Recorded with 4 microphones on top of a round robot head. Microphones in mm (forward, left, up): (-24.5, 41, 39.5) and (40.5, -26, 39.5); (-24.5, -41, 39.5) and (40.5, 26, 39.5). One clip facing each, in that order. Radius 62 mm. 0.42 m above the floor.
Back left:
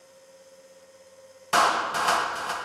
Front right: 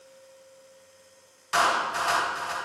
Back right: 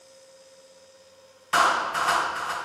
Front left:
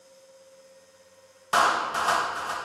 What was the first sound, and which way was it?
A clap, 110° left.